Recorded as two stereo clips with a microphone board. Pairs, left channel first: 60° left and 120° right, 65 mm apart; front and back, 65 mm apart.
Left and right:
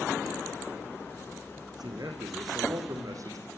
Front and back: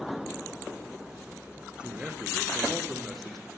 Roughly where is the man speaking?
Right.